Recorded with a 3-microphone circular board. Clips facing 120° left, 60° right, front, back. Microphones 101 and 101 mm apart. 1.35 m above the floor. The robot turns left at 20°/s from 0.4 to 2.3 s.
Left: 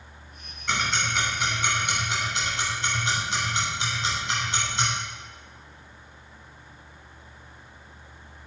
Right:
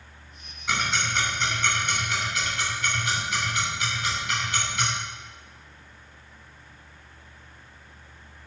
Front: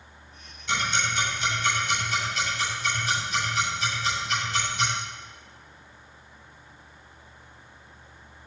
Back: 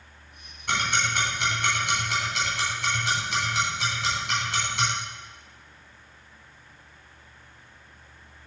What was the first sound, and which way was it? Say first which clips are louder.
Ticking: even, back 1 dB; 145° right.